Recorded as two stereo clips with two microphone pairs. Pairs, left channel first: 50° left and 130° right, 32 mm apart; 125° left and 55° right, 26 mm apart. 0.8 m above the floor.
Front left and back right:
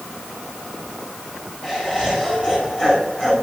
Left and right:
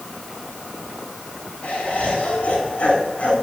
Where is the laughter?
110° left, 9 m.